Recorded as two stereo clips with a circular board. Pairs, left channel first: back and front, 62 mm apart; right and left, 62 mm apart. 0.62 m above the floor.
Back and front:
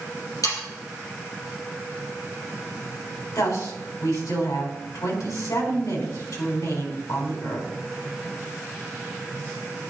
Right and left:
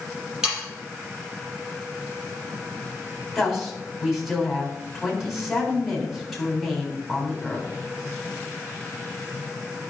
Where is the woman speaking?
Straight behind, 4 m.